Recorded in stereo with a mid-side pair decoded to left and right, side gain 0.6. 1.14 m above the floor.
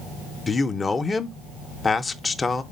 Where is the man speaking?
20° left, 0.5 m.